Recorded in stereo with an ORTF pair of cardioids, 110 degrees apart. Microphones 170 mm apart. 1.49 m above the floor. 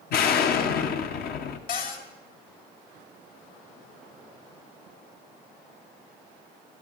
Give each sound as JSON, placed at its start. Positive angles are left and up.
{"t": 0.1, "sound": "an explosion", "azimuth_deg": 65, "distance_m": 1.3}
{"t": 1.7, "sound": "a cupboard door", "azimuth_deg": 55, "distance_m": 3.0}